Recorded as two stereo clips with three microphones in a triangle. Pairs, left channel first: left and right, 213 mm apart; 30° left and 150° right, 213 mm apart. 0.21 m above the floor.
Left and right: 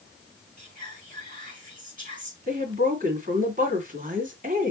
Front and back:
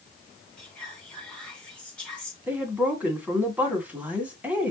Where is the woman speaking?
70° right, 1.8 m.